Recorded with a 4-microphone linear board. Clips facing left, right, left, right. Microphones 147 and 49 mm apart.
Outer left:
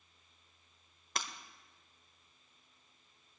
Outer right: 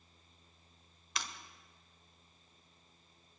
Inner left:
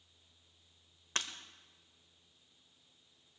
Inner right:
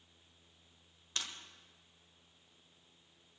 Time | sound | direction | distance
1.1 | breaking glass | 45° left (ahead or behind) | 1.2 m